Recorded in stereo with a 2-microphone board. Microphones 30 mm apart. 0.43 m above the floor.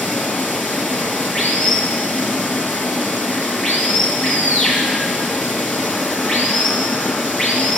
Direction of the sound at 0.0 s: 25° left (ahead or behind).